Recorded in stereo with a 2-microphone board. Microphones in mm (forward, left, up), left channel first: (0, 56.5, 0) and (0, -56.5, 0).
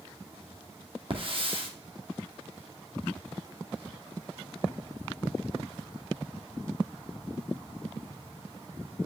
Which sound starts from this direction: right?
A hiss, at 1.1 s.